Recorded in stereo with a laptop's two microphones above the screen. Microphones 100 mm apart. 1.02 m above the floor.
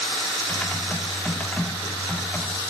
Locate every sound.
0.5 s typing on a keyboard: 15° left (ahead or behind), 0.7 m